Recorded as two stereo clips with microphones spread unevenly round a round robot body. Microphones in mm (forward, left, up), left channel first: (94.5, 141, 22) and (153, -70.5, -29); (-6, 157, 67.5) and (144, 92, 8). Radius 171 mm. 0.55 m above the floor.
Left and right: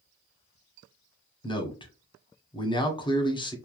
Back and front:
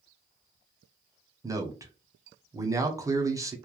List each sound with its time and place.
1.4 s a man speaking: 30° left, 1.1 m